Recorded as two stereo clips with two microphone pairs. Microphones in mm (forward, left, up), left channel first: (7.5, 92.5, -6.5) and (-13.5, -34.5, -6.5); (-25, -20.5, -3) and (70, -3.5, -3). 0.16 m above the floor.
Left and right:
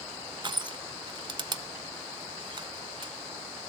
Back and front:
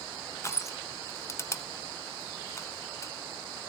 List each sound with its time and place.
0.4 s crushing: 125° right, 0.6 m